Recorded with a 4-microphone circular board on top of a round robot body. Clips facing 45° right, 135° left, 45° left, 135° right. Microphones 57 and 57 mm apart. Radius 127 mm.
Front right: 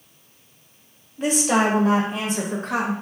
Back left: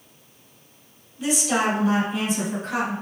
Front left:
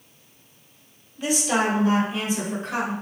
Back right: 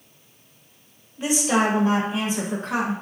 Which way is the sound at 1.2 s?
75° right.